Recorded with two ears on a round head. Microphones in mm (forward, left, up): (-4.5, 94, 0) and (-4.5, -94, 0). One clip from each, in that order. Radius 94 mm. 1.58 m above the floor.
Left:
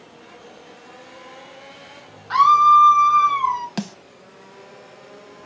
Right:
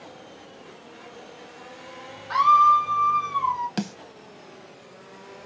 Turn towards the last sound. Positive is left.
turn(degrees=5)  # may be behind; listen again after turning